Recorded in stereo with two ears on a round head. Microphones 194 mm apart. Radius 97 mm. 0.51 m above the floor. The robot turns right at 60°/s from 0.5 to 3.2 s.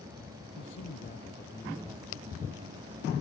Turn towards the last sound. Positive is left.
turn(degrees=-95)